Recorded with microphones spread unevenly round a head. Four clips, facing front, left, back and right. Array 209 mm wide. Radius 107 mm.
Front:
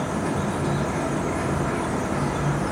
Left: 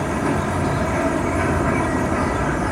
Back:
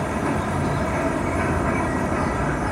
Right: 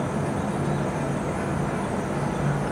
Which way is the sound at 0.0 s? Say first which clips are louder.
Left 6 dB, back 2 dB; 100° left.